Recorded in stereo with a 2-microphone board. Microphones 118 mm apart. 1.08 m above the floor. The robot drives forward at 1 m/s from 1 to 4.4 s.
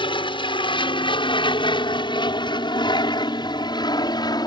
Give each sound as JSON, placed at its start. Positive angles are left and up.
{"t": 0.0, "sound": "an aircraft", "side_deg": 50}